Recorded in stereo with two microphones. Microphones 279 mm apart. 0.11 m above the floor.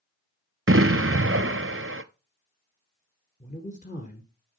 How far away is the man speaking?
About 1.6 m.